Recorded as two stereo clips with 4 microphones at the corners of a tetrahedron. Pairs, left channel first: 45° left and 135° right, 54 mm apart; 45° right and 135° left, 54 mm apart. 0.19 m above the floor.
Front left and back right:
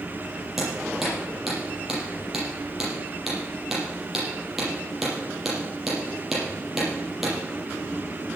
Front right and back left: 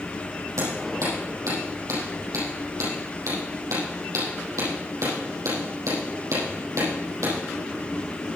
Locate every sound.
0.6 s hammering: 140° left, 6.5 m